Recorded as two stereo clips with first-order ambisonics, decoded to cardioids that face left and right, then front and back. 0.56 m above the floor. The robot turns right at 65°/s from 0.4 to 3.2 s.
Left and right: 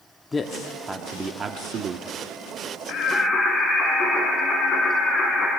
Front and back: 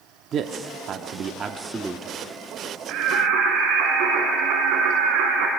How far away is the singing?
About 3 m.